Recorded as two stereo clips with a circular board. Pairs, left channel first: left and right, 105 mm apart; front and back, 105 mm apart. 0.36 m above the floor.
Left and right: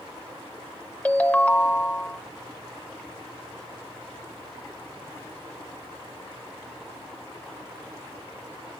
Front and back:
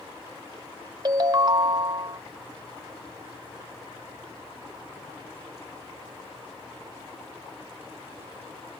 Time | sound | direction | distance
1.1 | a ringtone | 160° left | 0.5 m